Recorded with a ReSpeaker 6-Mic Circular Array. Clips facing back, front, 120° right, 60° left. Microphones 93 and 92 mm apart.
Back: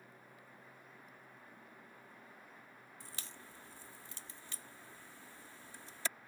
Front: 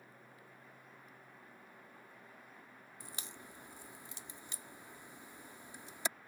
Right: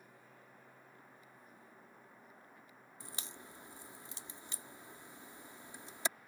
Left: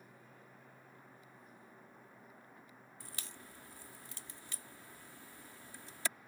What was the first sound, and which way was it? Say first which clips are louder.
A crack: front 3 dB, right 3 dB; 65° right.